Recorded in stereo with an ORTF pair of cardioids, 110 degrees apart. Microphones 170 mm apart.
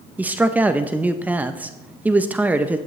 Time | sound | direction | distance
0.2 | a man speaking | 10° right | 0.6 m